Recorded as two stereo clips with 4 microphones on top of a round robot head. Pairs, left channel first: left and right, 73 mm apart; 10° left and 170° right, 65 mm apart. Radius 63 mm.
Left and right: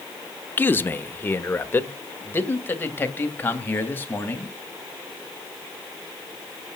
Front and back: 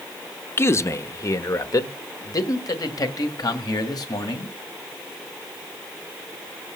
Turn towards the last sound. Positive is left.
turn(degrees=30)